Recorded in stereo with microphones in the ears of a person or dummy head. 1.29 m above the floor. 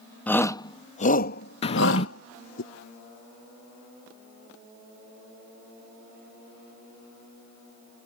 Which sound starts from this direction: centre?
A shout, at 0.3 s.